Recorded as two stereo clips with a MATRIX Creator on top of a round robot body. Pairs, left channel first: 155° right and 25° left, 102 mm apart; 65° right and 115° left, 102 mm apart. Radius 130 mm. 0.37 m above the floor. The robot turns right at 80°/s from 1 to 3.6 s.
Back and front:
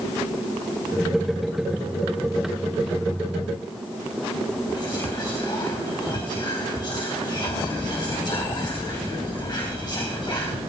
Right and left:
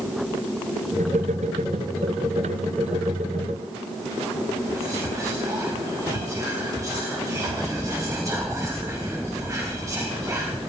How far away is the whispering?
About 2.5 m.